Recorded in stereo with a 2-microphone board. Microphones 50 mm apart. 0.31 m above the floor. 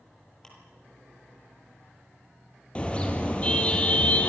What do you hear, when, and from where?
0.4 s ticking: 10° left (ahead or behind), 10 m
2.8 s a car horn: 25° left (ahead or behind), 3.5 m